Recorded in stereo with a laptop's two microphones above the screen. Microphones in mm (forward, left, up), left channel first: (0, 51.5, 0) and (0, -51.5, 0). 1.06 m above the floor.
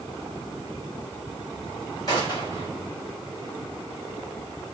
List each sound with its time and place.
2.1 s a gunshot: 40° left (ahead or behind), 2.5 m